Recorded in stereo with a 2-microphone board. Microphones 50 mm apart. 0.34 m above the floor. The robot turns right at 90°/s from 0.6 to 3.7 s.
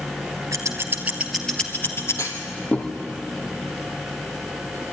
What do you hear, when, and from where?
0.5 s scissors: 70° right (ahead or behind), 2 m; by 2.3 s 80° left, 2 m
2.2 s a clunk: 75° left (ahead or behind), 2.5 m; by 2.9 s 10° left (ahead or behind), 2.5 m